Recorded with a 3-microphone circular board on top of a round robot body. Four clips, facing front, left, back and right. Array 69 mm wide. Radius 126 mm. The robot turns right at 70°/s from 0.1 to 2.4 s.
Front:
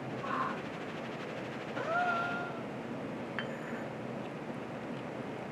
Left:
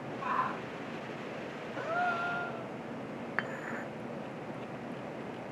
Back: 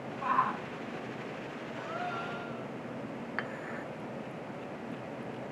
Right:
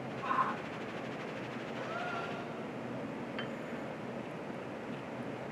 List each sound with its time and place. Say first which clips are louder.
0.2 s a shout: even, back 7 dB; 145° left, 6.5 m; by 0.6 s 175° left, 6.5 m
1.8 s a gasp: left 8 dB, front 6 dB; 30° left, 2 m; by 2.7 s 75° left, 2 m
3.4 s dishes clattering: left 3 dB, back 3 dB; 105° left, 0.5 m